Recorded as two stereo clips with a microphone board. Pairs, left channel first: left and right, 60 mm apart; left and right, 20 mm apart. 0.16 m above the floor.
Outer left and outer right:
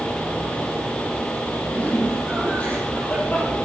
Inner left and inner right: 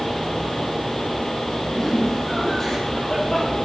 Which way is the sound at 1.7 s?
25° left (ahead or behind).